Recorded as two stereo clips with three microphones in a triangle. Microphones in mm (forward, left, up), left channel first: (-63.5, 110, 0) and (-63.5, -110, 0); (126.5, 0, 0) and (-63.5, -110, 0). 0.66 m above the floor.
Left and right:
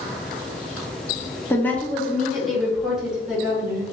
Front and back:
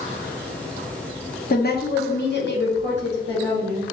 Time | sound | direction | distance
1.5 | a woman speaking | 15° left | 0.8 m